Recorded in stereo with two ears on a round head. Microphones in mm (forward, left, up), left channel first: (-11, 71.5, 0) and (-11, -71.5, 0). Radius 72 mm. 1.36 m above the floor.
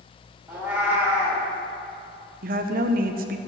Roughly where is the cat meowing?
Centre.